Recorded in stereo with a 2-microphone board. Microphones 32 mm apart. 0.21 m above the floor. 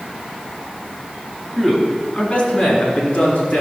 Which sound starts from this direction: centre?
A man speaking, at 1.6 s.